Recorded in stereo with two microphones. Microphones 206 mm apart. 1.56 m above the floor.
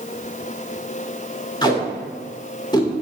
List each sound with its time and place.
1.6 s tape being pulled: 20° left (ahead or behind), 2.0 m